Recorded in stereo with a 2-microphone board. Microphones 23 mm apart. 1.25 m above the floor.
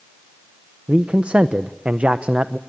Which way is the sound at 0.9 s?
65° right (ahead or behind).